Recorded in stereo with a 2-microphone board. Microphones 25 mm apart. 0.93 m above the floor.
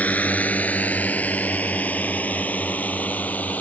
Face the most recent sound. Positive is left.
turn(degrees=75)  # may be behind; listen again after turning